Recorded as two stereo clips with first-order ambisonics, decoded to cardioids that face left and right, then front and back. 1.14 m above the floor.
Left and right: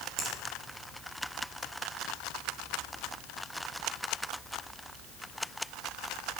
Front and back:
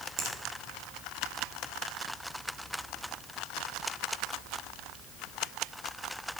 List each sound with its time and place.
0.2 s a finger snap: 135° right, 1.5 m